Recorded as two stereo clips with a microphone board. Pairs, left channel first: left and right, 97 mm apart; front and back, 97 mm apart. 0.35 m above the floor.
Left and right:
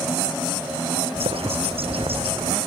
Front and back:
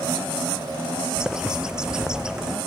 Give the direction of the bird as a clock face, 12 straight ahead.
3 o'clock.